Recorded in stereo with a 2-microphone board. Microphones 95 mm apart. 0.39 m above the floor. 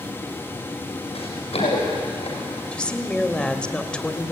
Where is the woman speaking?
10° left (ahead or behind), 1.5 m.